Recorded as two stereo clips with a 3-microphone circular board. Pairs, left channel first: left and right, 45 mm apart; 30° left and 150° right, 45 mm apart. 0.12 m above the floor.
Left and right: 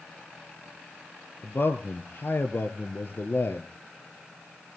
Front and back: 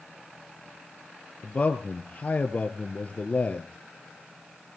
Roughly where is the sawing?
No sawing in this recording.